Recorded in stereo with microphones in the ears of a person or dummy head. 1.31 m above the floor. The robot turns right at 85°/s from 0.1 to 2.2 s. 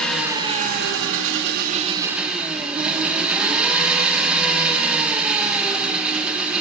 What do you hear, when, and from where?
0.0 s an engine running: 175° left, 0.9 m; by 6.6 s 10° right, 0.9 m